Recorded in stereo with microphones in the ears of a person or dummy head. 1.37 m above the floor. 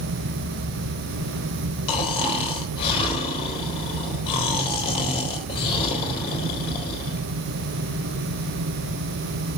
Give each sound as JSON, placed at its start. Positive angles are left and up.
{"t": 1.9, "sound": "snoring", "side_deg": 30, "distance_m": 3.5}